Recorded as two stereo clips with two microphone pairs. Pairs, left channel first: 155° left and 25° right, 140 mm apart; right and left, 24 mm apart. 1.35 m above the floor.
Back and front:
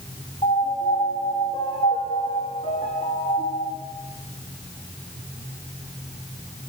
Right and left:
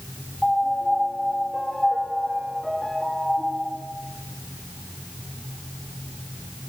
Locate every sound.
0.4 s a piano: 160° right, 2.5 m